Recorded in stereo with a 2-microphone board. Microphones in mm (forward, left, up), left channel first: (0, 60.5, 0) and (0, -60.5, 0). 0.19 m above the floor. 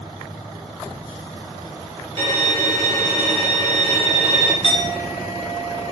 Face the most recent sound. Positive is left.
turn(degrees=45)  # may be behind; listen again after turning